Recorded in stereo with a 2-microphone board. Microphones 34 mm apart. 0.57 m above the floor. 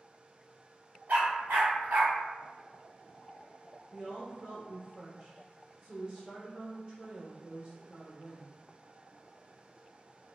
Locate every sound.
1.1 s a dog barking: 85° right, 1.2 m
3.9 s a woman speaking: 25° right (ahead or behind), 1.1 m